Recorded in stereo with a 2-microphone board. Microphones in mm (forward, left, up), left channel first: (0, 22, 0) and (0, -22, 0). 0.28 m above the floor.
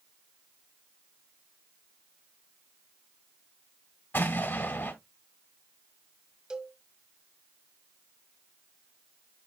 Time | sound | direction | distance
4.1 | an explosion | 50° left (ahead or behind) | 2 m
6.5 | a cowbell | 20° right (ahead or behind) | 1.0 m